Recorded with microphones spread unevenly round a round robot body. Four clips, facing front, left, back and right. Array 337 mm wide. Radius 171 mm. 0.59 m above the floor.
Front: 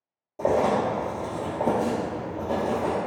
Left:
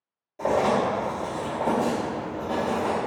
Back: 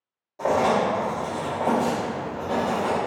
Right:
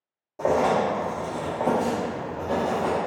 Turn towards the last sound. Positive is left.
turn(degrees=-40)